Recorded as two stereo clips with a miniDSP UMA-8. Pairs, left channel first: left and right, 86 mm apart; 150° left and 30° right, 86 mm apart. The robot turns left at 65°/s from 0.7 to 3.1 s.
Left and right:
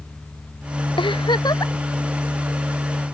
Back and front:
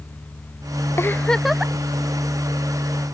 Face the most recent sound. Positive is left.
turn(degrees=-45)